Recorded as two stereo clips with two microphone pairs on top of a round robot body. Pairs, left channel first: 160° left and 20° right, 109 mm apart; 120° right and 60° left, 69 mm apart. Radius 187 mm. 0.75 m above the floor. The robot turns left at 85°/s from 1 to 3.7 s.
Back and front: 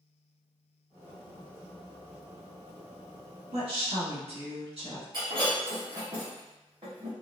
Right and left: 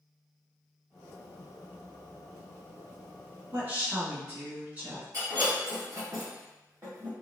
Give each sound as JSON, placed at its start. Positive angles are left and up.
{"t": 3.5, "sound": "a woman speaking", "azimuth_deg": 15, "distance_m": 1.9}
{"t": 5.1, "sound": "breaking glass", "azimuth_deg": 25, "distance_m": 1.6}